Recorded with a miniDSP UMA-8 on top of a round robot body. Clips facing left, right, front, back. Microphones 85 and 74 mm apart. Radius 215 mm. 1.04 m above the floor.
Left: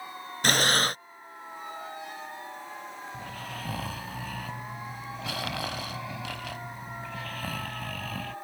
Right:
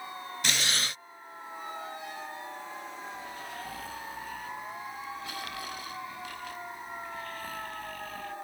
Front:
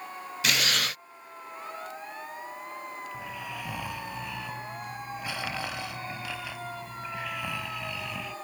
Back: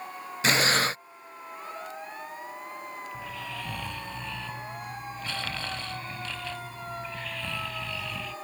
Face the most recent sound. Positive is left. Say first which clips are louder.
# left 1 dB, even
turn(degrees=80)